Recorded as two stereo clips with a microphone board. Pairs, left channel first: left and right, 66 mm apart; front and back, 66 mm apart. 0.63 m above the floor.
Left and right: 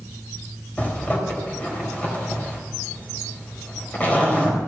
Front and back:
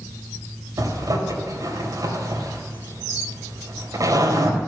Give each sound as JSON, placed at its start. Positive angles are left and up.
{"t": 0.8, "sound": "a zipper", "azimuth_deg": 155, "distance_m": 3.5}